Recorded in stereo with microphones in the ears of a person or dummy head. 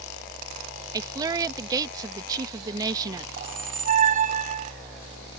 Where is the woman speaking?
20° right (ahead or behind).